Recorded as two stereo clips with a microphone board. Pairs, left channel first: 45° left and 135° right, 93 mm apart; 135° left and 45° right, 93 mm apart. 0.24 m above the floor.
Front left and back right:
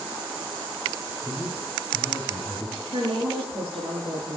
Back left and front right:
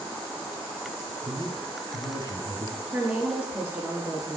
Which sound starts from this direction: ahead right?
A man speaking, at 1.2 s.